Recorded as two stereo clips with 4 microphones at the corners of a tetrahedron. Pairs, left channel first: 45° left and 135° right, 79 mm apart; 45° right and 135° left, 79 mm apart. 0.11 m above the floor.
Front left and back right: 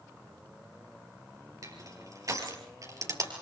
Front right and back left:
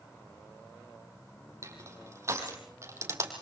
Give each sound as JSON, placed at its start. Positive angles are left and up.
{"t": 1.6, "sound": "crushing", "azimuth_deg": -175, "distance_m": 3.5}